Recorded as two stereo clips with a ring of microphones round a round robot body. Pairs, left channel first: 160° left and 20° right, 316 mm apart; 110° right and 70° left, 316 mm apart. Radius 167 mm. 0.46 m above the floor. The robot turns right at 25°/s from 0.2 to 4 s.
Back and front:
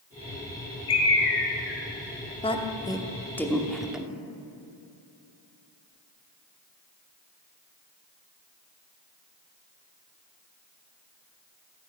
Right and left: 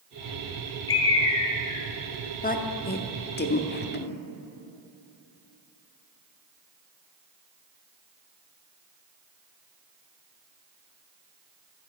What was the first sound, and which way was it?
A bird, 160° right.